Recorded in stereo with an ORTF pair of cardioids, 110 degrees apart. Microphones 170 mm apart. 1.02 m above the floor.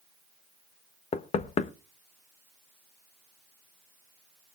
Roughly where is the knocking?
Ahead left.